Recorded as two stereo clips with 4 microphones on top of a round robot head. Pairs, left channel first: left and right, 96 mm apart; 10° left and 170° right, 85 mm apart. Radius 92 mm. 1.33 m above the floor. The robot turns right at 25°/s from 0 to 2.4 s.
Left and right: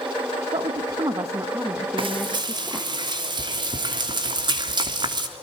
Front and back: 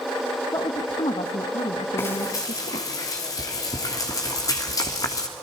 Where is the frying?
60° right, 3 m; by 5.3 s 50° right, 3 m.